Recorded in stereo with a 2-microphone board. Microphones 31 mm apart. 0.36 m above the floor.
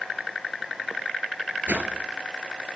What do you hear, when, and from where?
1.7 s a whoosh: 80° right, 1.3 m